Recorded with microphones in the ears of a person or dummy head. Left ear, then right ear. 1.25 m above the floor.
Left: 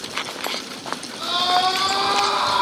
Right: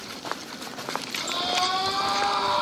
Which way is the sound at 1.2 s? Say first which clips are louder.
Left 7 dB; 60° left (ahead or behind).